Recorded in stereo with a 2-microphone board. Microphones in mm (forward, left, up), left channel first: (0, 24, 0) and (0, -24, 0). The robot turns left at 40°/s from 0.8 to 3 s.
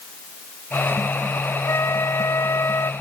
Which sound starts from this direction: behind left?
A flute, at 1.7 s.